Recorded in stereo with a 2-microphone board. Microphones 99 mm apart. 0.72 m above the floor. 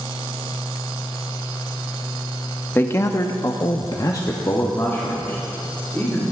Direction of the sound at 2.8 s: 20° left (ahead or behind).